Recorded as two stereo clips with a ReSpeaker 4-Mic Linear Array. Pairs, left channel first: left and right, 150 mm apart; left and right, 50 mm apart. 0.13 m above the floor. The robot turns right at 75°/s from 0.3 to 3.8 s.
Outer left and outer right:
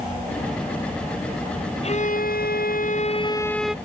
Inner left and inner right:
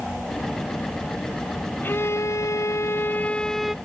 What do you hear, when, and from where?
1.8 s a violin: 40° left; by 3.8 s 175° right